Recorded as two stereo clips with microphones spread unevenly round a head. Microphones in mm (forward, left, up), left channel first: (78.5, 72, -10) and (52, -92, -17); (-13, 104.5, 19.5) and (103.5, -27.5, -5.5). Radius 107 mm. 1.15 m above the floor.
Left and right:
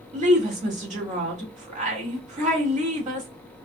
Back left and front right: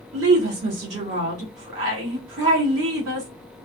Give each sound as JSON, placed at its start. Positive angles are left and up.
{"t": 0.1, "sound": "a woman speaking", "azimuth_deg": -55, "distance_m": 2.0}